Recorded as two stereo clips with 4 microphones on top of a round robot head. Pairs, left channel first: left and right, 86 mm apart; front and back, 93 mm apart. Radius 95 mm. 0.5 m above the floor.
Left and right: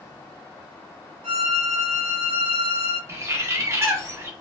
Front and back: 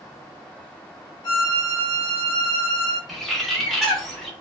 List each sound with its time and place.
1.2 s a violin: 55° right, 0.8 m
3.1 s a bird: 90° right, 0.9 m